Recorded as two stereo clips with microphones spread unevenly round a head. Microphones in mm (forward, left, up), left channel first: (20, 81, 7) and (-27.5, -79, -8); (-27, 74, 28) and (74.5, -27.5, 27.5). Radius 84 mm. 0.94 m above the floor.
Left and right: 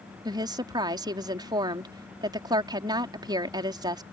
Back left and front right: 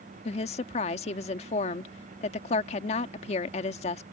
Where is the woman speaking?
175° right.